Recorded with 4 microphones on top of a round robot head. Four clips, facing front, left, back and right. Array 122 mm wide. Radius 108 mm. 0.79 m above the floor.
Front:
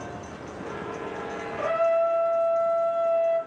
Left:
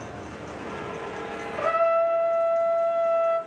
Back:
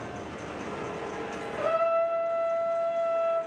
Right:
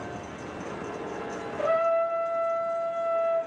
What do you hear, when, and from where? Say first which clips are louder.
1.6 s a trumpet: left 2 dB, front 3 dB; 100° left, 2 m